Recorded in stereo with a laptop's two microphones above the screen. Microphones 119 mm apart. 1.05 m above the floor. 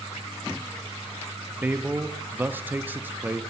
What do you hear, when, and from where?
1.6 s a man speaking: 15° right (ahead or behind), 0.5 m